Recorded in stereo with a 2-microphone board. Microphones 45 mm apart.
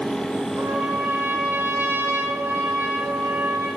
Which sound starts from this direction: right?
A trumpet, at 0.6 s.